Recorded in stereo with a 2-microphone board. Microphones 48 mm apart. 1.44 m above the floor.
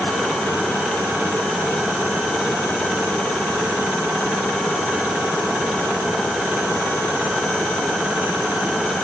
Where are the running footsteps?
I don't hear running footsteps.